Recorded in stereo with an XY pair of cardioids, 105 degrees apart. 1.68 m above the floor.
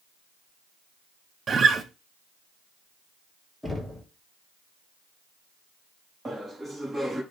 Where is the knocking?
5° left, 2.5 m.